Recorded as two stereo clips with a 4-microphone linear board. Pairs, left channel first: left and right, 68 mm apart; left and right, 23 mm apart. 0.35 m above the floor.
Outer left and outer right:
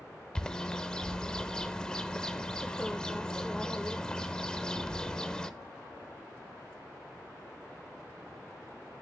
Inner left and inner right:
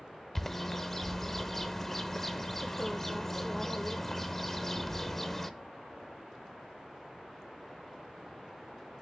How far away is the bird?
About 0.7 m.